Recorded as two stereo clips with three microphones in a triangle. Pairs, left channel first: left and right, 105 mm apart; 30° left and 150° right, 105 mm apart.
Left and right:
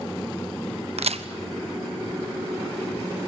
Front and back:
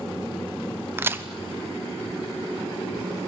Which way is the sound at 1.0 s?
80° right.